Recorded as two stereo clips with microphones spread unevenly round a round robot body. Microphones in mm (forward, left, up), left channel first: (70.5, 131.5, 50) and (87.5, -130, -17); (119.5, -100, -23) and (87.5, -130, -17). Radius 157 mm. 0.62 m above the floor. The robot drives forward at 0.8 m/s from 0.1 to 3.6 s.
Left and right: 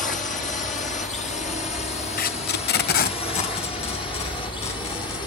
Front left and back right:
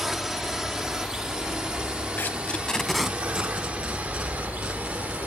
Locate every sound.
0.0 s a drone: 150° left; by 5.3 s 175° left
2.2 s tape being pulled: 60° left; by 5.2 s 155° left